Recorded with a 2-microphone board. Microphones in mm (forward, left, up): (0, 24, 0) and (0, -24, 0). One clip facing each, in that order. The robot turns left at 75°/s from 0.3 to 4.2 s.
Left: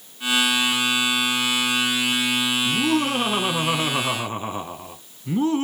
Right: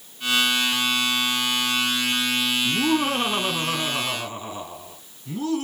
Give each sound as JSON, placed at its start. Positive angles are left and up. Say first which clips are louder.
{"t": 2.6, "sound": "laughter", "louder": "even", "side_deg": -20, "distance_m": 1.1}